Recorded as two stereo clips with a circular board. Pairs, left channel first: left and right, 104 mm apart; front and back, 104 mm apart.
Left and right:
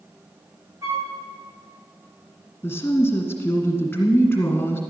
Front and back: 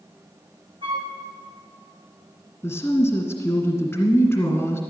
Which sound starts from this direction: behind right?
A flute, at 0.8 s.